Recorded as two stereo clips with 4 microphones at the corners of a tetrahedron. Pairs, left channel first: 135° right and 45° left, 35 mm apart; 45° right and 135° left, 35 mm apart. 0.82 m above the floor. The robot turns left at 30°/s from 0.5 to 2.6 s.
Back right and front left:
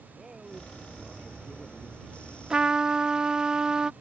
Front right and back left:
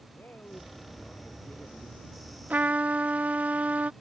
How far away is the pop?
I don't hear a pop.